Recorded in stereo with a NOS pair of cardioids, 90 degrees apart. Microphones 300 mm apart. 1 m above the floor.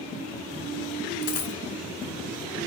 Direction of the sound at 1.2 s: 50° left.